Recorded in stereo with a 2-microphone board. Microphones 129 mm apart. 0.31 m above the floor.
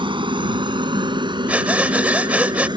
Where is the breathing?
10° right (ahead or behind).